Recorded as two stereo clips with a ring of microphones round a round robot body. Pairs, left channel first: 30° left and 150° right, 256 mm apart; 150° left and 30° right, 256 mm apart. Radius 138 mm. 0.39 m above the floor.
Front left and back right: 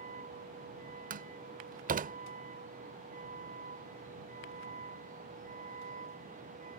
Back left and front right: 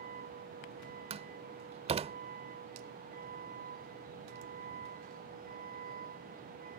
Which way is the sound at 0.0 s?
90° right.